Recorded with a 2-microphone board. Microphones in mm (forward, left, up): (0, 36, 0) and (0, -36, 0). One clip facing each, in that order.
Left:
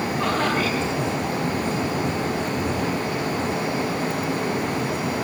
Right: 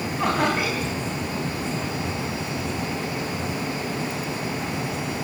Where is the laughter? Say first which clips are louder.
Right 1 dB; 10° right (ahead or behind), 4 m.